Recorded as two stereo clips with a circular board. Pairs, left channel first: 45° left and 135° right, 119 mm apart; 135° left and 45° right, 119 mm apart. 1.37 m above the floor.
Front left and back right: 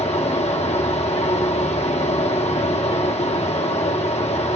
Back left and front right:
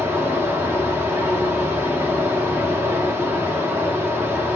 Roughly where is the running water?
Ahead left.